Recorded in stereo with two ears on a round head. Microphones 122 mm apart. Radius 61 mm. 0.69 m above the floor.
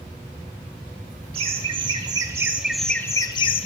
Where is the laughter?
40° right (ahead or behind), 1.2 m; by 3.7 s 45° left (ahead or behind), 0.7 m.